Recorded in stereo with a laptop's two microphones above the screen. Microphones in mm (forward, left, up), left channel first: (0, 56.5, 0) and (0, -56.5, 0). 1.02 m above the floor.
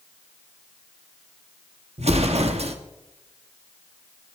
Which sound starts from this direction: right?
An explosion, at 2.0 s.